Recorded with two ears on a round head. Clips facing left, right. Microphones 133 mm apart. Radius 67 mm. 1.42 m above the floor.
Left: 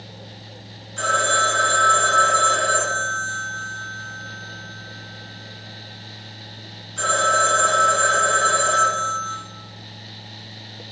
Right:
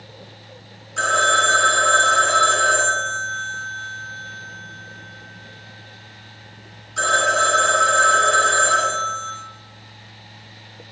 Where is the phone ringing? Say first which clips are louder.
Right 1 dB; 65° right (ahead or behind), 2.5 m.